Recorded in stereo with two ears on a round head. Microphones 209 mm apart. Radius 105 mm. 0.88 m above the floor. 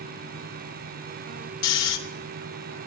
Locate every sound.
1.6 s snoring: 80° left, 3 m